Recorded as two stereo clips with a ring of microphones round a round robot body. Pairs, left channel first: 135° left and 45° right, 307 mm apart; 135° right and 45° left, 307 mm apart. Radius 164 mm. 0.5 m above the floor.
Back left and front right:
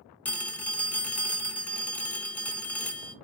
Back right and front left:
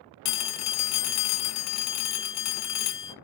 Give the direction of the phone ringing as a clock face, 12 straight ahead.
5 o'clock.